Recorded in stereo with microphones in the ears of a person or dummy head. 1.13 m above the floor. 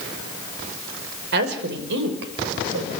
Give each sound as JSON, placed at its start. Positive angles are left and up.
{"t": 1.3, "sound": "a woman speaking", "side_deg": -65, "distance_m": 5.5}